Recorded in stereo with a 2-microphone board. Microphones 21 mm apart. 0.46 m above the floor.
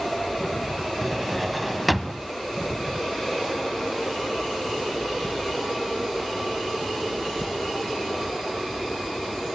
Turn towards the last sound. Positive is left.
turn(degrees=0)  # may be behind; listen again after turning